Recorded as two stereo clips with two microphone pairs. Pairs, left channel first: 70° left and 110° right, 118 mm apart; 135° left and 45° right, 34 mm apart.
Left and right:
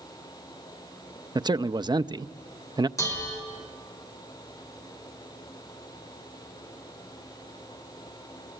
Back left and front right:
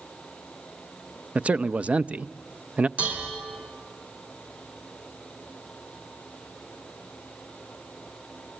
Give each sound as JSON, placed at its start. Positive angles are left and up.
{"t": 1.4, "sound": "a man speaking", "azimuth_deg": -75, "distance_m": 0.6}
{"t": 3.0, "sound": "dishes clattering", "azimuth_deg": 5, "distance_m": 6.0}